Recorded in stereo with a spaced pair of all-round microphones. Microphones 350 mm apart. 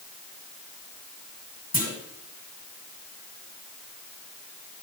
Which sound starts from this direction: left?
A clunk, at 1.7 s.